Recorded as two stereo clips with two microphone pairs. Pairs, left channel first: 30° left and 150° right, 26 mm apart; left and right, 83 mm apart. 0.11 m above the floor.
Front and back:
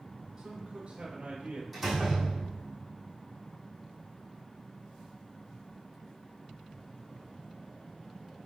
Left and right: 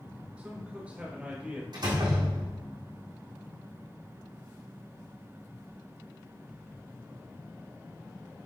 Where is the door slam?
65° right, 3 m.